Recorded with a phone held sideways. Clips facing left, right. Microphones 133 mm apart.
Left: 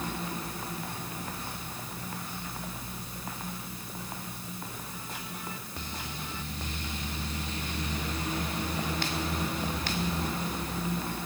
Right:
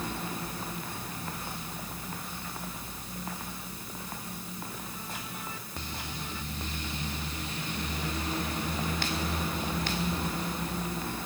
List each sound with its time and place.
Only background noise.